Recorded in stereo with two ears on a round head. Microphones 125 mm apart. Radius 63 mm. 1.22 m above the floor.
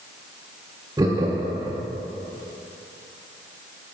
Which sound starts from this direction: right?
Laughter, at 1.0 s.